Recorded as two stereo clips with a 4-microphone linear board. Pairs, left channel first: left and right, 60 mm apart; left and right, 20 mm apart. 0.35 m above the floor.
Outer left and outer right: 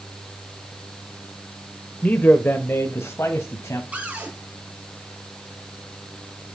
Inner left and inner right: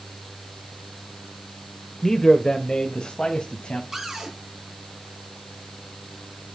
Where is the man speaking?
25° left (ahead or behind), 0.9 m; by 3.8 s 55° left (ahead or behind), 1.9 m.